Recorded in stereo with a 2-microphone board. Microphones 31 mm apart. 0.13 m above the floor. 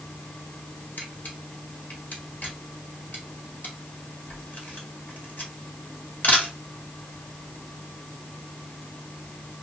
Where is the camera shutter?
60° left (ahead or behind), 1.2 m.